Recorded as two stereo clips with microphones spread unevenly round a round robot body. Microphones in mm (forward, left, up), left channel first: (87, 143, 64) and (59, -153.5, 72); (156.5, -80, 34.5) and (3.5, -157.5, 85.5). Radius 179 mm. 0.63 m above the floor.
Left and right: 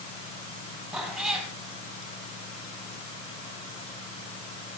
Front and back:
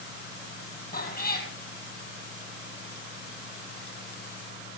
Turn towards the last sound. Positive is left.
turn(degrees=-5)